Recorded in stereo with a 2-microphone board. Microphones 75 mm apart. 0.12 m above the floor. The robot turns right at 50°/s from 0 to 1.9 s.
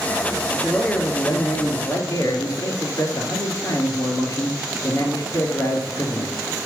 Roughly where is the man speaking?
Ahead.